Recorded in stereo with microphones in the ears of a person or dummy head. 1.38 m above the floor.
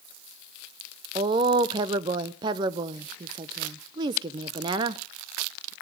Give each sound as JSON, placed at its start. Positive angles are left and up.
{"t": 1.1, "sound": "a woman speaking", "side_deg": -30, "distance_m": 0.6}